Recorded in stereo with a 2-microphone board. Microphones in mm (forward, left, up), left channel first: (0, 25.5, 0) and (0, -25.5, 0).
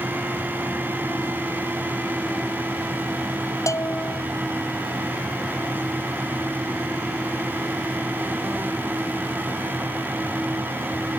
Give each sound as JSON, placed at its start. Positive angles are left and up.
{"t": 3.7, "sound": "a bell", "side_deg": 90}